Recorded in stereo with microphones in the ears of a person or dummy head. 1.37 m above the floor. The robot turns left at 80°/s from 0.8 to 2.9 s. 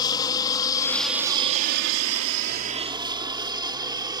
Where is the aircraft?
25° left (ahead or behind); by 4.2 s 25° right (ahead or behind).